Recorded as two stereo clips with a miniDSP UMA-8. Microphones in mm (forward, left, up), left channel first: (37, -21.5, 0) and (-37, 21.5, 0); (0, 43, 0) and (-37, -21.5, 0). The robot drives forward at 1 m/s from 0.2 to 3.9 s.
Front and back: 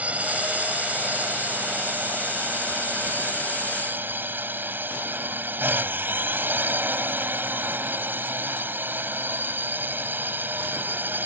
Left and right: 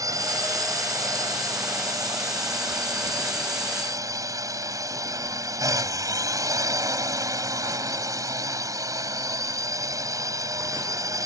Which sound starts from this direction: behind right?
A drone, at 0.0 s.